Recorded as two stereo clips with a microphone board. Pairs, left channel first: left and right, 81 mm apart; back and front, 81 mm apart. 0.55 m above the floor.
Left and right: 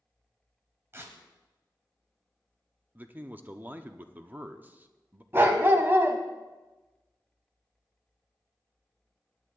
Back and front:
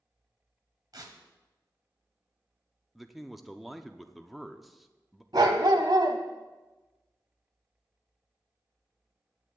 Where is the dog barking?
30° right, 1.2 m.